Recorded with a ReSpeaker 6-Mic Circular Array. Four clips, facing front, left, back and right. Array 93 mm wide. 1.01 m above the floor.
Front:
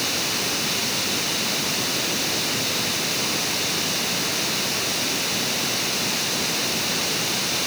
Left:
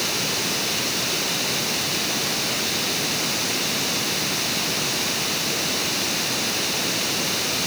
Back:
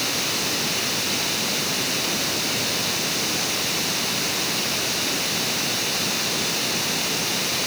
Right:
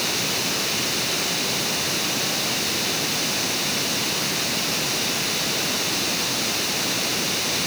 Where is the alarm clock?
I don't hear an alarm clock.